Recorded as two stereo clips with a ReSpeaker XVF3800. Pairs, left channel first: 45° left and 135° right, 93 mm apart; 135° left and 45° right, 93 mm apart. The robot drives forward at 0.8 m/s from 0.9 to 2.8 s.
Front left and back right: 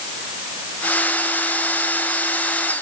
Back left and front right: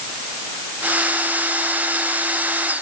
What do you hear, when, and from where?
Only background noise.